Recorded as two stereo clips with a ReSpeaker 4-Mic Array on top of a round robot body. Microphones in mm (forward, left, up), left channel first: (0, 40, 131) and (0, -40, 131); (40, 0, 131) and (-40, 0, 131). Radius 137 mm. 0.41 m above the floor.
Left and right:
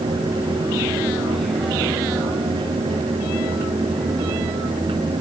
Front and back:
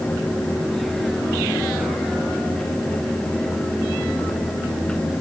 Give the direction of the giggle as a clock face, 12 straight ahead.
No giggle in this recording.